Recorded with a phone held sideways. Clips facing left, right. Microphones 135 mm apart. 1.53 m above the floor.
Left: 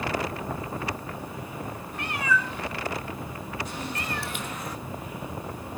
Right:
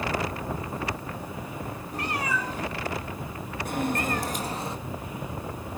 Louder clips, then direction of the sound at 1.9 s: Left 2 dB; 40° right (ahead or behind).